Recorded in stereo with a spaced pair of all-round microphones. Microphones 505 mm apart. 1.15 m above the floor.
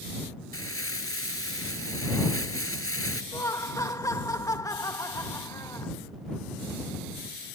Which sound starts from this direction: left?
Crumpling, at 0.5 s.